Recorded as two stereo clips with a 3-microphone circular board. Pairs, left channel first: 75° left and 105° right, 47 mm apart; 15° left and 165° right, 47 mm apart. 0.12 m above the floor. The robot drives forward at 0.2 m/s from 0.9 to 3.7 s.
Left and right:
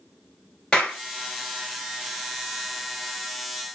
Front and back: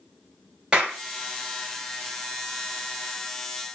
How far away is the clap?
About 1.6 m.